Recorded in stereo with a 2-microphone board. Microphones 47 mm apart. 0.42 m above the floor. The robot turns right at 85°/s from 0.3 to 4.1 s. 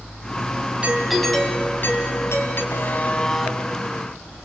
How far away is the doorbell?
About 3.5 m.